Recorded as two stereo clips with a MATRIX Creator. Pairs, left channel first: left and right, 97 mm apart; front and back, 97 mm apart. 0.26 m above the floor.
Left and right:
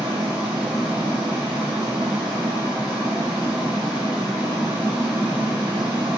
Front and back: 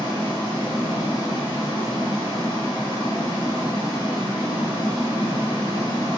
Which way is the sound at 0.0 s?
15° right.